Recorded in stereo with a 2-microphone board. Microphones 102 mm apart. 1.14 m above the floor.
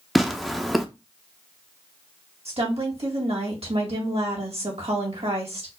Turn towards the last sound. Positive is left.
turn(degrees=-80)